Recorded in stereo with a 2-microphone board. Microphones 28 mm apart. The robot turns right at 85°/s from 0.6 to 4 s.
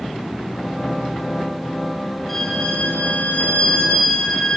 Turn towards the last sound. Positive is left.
turn(degrees=155)